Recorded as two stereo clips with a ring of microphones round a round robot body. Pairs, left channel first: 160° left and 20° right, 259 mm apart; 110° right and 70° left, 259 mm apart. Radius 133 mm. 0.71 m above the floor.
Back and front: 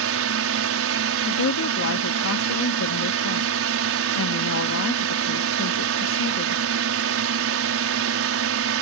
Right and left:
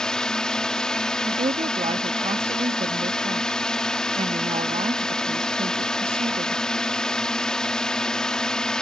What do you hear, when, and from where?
0.0 s a drone: 25° right
1.3 s a woman speaking: 135° left